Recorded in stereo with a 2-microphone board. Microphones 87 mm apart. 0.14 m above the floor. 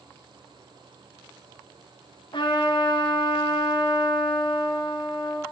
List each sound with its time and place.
2.3 s a trumpet: 70° left (ahead or behind), 6 m